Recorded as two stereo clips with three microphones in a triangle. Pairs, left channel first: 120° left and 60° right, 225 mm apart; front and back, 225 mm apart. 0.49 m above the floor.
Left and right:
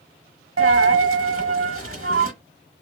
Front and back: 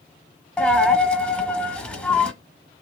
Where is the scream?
No scream in this recording.